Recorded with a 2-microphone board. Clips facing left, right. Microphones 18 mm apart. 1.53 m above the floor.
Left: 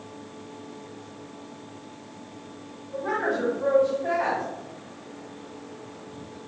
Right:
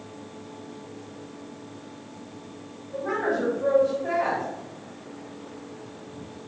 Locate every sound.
2.9 s a woman speaking: 70° left (ahead or behind), 1.7 m